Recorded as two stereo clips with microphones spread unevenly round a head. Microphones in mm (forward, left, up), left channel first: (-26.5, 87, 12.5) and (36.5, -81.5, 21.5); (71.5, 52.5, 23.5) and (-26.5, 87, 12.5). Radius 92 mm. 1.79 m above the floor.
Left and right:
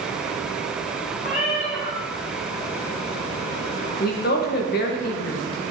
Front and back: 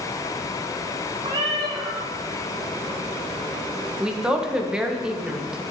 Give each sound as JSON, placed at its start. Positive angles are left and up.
{"t": 1.2, "sound": "a cat meowing", "azimuth_deg": 140, "distance_m": 2.0}
{"t": 4.0, "sound": "a woman speaking", "azimuth_deg": 75, "distance_m": 1.5}